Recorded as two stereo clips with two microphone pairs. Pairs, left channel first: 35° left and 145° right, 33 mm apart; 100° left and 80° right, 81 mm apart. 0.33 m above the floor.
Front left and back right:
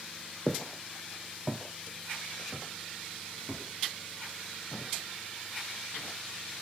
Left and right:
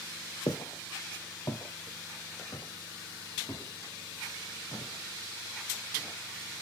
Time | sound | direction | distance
0.5 | footsteps | 110° left | 0.8 m